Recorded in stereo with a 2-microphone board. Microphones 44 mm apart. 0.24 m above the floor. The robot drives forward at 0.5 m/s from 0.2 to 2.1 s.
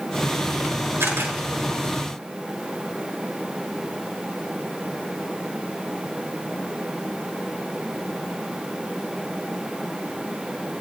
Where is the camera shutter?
70° right (ahead or behind), 4.5 m.